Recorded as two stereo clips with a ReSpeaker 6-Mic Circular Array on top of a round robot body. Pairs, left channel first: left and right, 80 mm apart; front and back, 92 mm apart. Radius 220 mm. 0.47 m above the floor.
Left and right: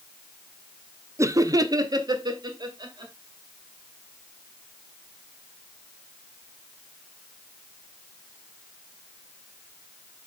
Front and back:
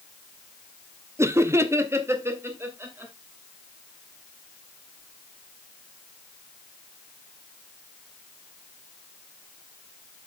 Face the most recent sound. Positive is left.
turn(degrees=-115)